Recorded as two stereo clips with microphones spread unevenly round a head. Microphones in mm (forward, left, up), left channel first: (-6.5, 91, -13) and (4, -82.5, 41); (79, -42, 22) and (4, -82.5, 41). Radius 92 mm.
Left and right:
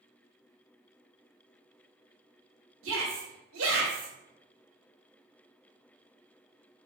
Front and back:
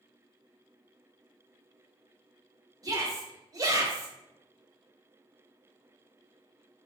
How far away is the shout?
About 1.7 m.